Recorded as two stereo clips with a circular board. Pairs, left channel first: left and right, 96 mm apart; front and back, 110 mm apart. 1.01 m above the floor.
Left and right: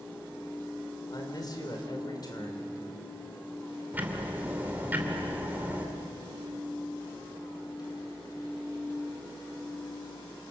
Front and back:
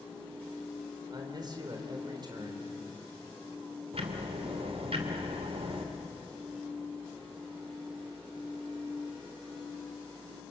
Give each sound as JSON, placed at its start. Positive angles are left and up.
{"t": 1.1, "sound": "a man speaking", "azimuth_deg": 135, "distance_m": 3.5}
{"t": 3.9, "sound": "ticking", "azimuth_deg": -160, "distance_m": 2.5}